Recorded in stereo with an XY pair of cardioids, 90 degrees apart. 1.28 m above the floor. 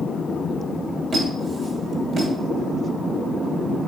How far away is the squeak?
About 2 m.